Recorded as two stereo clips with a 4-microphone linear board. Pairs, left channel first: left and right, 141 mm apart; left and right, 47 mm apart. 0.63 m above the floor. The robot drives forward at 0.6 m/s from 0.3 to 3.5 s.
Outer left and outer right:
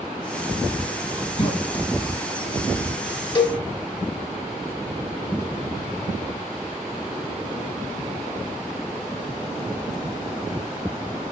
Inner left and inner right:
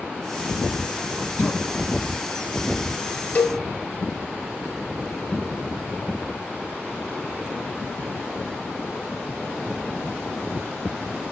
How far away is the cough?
About 2.5 m.